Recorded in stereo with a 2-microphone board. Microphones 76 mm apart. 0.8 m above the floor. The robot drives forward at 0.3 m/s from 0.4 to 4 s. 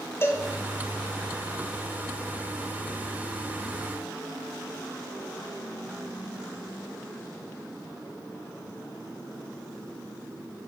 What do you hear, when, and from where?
0.2 s a cowbell: 30° left (ahead or behind), 1.6 m